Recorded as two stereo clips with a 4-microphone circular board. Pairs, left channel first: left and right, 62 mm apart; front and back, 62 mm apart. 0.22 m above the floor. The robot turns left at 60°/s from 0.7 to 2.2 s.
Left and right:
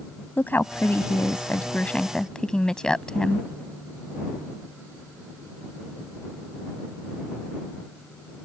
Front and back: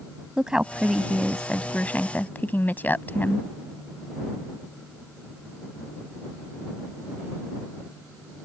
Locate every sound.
0.4 s a woman speaking: 110° left; by 3.5 s 20° left